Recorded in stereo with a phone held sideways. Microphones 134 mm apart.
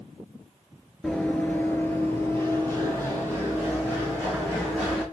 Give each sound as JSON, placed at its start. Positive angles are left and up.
{"t": 1.0, "sound": "running footsteps", "side_deg": 5, "distance_m": 1.0}